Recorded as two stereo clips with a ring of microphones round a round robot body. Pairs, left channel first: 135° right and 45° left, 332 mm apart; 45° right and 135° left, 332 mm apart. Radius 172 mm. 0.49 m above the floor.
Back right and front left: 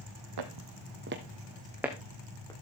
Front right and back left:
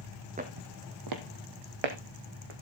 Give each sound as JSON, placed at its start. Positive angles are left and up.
{"t": 0.4, "sound": "footsteps", "azimuth_deg": 65, "distance_m": 1.6}